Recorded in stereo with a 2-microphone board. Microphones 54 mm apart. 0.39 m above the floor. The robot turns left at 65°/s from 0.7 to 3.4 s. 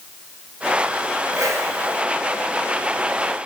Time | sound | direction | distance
1.3 | a whoosh | 90° right | 1.7 m